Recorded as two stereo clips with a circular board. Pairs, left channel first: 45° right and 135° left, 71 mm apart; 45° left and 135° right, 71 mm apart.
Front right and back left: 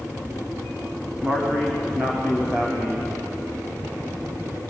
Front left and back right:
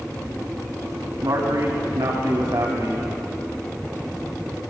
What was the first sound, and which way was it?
A man speaking, 150° right.